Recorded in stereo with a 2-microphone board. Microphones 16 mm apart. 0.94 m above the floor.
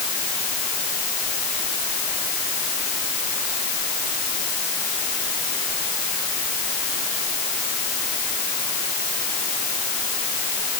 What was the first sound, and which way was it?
Only background noise.